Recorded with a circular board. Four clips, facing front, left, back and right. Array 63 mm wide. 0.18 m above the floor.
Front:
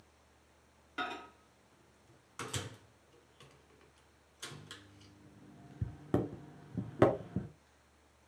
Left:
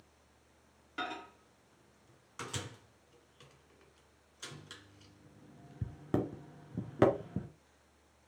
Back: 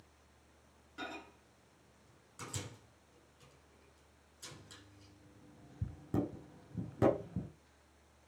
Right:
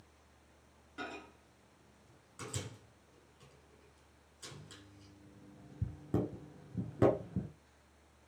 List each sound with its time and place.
1.0 s a microwave: 45° left, 2.0 m